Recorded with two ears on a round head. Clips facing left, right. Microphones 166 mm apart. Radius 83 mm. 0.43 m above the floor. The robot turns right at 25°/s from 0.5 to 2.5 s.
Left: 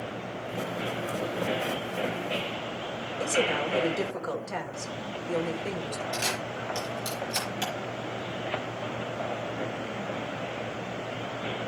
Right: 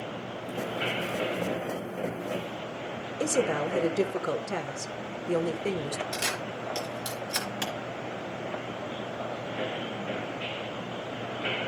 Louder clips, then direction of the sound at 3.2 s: Right 1 dB; 40° right (ahead or behind).